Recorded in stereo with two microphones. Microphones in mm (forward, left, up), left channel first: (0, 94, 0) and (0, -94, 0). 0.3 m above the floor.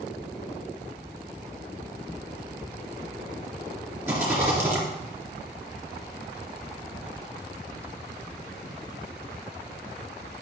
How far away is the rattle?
About 3.5 m.